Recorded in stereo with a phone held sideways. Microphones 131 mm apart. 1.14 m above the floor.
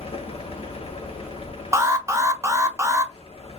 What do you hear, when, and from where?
0.0 s a fan: 50° left (ahead or behind), 0.8 m
1.7 s an alarm: 20° right (ahead or behind), 0.6 m